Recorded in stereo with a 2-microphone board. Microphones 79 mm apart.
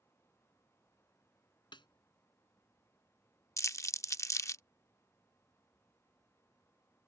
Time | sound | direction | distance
1.7 | a snare drum | 85° left | ?
3.6 | crumpling | 40° left (ahead or behind) | ?